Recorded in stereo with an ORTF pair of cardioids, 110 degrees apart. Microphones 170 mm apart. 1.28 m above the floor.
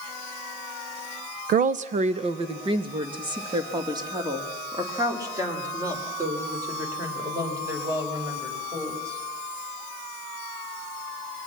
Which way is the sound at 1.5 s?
60° right.